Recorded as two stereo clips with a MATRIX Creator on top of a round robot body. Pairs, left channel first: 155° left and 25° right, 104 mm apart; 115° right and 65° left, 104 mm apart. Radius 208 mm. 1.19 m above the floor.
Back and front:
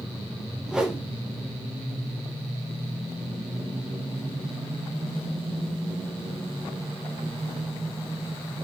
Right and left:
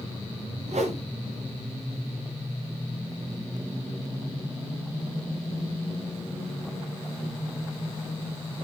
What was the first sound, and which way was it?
A whoosh, 60° left.